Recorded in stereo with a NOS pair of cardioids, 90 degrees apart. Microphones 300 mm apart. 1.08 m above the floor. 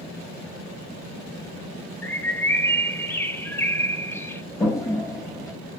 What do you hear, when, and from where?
2.0 s a bird: 10° left, 1.0 m
4.6 s a toilet flushing: 10° left, 2 m